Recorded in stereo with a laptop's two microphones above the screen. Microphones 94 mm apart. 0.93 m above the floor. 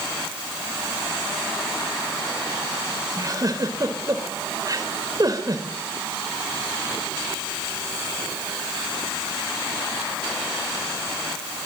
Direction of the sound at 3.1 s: 40° right (ahead or behind).